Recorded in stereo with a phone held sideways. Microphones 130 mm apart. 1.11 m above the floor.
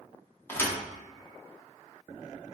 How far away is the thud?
About 0.6 m.